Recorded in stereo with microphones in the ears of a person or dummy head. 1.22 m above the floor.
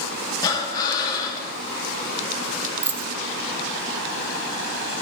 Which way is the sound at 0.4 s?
25° left (ahead or behind).